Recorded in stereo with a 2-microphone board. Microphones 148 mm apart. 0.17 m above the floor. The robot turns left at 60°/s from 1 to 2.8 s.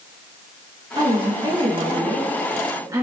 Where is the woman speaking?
40° right, 2 m; by 3.0 s 150° right, 2 m.